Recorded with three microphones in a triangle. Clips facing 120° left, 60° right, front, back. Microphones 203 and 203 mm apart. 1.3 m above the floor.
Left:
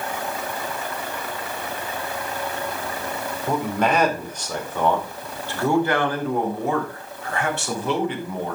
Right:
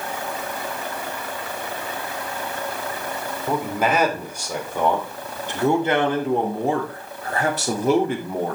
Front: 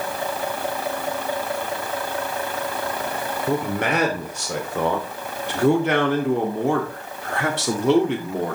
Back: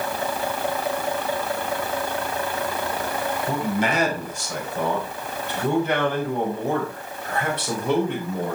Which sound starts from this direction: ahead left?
A man speaking, at 3.5 s.